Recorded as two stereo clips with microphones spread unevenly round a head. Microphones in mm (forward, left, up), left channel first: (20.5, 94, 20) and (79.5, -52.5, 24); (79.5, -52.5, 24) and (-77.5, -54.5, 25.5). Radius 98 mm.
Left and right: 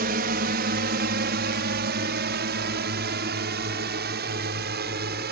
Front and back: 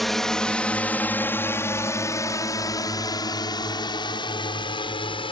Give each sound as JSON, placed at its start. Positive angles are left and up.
{"t": 0.0, "sound": "a drone", "azimuth_deg": -90}